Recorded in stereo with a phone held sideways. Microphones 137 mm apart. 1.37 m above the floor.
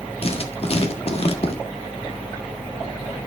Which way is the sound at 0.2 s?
50° left (ahead or behind).